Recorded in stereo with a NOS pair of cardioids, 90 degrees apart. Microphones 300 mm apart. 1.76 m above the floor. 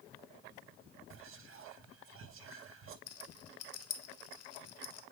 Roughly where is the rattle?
Ahead left.